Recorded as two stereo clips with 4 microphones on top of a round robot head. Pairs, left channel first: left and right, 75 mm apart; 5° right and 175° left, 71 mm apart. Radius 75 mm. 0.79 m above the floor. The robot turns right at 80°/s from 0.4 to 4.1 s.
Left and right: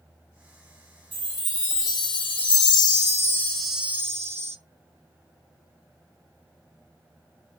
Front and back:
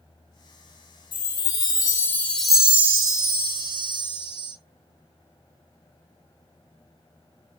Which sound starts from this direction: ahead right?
A chime, at 1.1 s.